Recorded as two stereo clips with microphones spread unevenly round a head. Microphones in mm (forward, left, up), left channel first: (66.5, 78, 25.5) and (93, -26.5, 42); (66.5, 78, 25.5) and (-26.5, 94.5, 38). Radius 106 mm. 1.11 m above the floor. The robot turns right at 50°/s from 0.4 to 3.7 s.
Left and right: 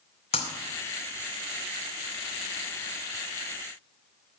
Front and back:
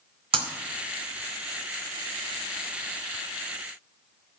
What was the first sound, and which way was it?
Breaking glass, 150° left.